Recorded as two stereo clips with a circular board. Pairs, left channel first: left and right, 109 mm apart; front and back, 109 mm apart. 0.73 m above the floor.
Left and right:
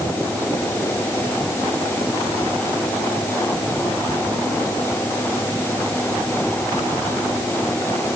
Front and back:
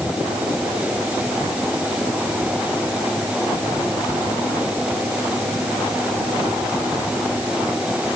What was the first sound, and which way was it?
Only background noise.